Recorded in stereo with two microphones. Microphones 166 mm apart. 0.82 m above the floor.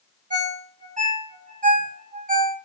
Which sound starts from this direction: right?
A ringtone, at 0.3 s.